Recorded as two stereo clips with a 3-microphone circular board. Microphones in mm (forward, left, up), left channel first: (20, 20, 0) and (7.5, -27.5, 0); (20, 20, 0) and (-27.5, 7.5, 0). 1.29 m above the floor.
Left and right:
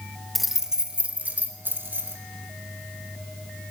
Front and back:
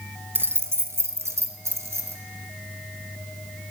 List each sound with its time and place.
0.3 s keys jangling: 160° left, 0.6 m; by 2.2 s 145° right, 1.4 m